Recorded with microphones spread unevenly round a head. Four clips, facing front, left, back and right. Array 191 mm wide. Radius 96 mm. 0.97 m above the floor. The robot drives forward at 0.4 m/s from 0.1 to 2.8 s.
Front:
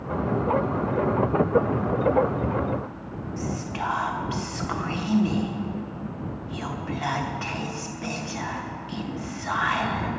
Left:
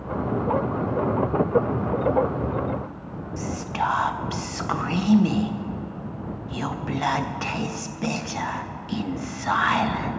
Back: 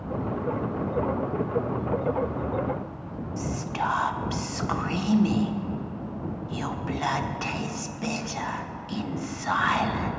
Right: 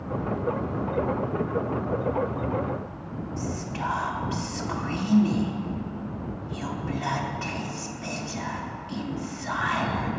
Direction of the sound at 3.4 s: 95° left.